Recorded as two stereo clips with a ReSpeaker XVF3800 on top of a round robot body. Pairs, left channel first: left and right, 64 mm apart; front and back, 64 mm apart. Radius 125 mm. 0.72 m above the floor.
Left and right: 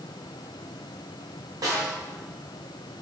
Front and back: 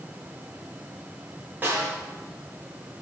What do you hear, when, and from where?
1.6 s a snare drum: 120° right, 2.5 m